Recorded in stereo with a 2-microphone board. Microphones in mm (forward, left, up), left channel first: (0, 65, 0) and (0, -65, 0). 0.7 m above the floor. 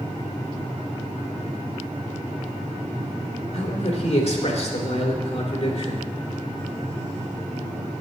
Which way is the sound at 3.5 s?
55° left (ahead or behind).